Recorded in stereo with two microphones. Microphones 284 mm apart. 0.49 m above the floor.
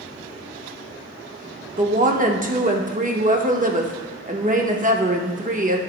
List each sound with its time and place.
1.8 s a woman speaking: 30° right (ahead or behind), 0.8 m